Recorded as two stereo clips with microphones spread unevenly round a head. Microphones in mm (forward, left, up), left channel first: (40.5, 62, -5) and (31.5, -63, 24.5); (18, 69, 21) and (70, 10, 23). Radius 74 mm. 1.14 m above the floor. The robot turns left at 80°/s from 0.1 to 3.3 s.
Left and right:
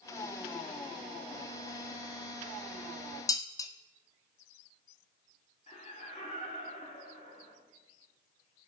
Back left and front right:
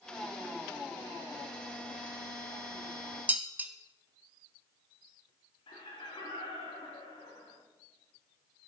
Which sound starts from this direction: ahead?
Dishes clattering, at 3.3 s.